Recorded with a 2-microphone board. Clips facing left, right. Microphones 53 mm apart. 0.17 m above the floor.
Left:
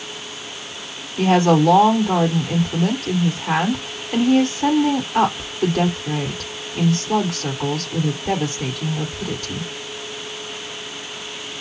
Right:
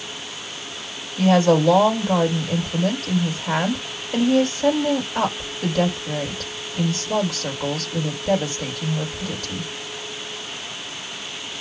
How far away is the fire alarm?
I don't hear a fire alarm.